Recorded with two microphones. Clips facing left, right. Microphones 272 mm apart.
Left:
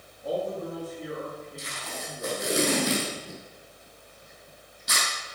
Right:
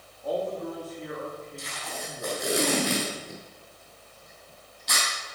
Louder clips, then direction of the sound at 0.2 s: Even; 40° left (ahead or behind).